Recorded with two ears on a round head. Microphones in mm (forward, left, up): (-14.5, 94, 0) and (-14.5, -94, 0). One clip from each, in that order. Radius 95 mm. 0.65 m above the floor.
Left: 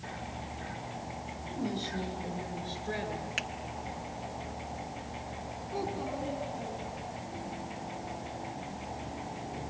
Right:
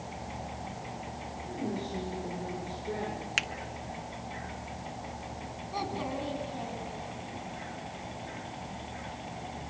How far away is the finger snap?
About 0.7 m.